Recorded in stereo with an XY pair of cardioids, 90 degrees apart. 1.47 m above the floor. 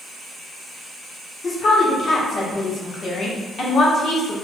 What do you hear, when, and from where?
1.4 s a woman speaking: 55° left, 1.0 m